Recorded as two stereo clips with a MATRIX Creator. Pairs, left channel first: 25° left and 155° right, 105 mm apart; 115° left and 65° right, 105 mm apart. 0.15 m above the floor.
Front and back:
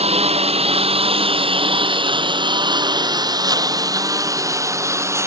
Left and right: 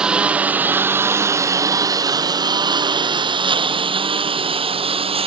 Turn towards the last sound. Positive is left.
turn(degrees=-95)